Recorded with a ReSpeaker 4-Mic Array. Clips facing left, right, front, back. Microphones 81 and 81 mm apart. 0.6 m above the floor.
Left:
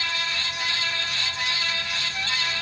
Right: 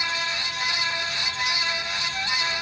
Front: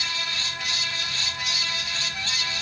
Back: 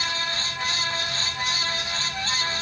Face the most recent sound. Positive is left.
No sound to turn to.